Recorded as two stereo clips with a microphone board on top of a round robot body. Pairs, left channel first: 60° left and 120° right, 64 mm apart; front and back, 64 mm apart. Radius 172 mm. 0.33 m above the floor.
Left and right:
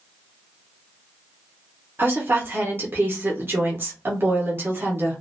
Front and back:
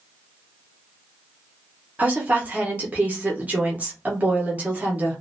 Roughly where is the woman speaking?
Behind right.